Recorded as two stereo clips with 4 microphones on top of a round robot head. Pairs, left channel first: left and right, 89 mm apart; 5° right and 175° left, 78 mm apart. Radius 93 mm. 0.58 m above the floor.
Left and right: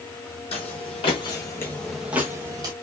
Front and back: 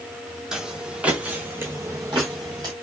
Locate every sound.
0.5 s footsteps: 95° left, 1.1 m; by 2.7 s 125° right, 0.8 m